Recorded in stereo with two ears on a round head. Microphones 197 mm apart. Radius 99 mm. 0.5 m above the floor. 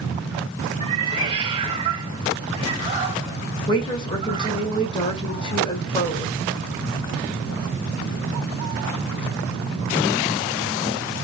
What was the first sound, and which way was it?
A cat meowing, 25° right (ahead or behind).